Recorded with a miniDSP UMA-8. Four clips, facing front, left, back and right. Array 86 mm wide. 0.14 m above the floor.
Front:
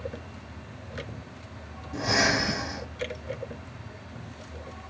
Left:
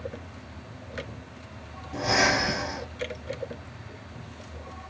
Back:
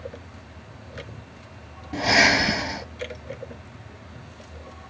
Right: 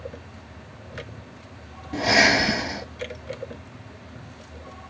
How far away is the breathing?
About 1.0 m.